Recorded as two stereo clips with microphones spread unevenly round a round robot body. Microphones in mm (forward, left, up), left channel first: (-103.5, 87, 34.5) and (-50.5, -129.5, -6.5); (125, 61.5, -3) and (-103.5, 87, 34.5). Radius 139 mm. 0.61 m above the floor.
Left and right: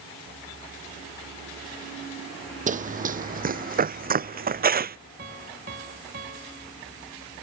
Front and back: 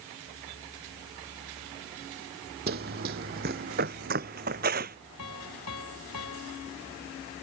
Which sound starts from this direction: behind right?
Running footsteps, at 2.7 s.